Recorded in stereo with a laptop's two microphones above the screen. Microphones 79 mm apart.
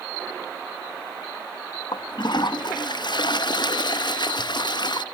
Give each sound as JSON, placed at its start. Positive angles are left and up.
{"t": 1.9, "sound": "a toilet flushing", "side_deg": 65, "distance_m": 0.5}